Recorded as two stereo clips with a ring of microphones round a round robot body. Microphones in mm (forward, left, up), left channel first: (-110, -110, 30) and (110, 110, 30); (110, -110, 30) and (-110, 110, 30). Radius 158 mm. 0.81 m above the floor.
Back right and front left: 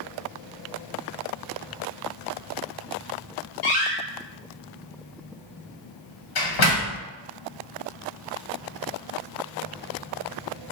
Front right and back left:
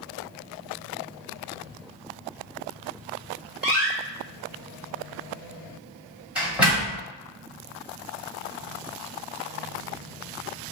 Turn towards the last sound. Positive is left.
turn(degrees=-140)